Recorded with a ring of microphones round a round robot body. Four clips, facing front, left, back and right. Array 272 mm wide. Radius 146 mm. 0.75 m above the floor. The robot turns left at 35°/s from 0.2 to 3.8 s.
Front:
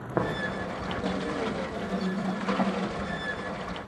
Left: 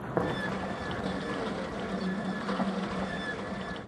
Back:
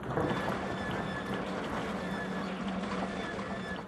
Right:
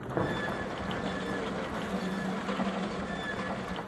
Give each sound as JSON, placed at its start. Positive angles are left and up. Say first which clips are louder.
{"t": 0.2, "sound": "tapping", "louder": "left 1 dB, front 4 dB", "azimuth_deg": 25, "distance_m": 0.5}